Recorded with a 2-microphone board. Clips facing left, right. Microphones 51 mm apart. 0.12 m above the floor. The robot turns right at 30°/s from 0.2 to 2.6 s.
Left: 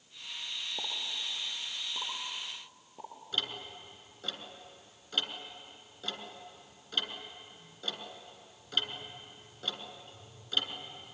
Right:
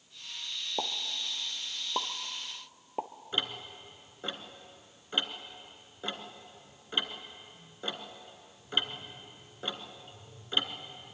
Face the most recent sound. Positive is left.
turn(degrees=-25)  # may be behind; listen again after turning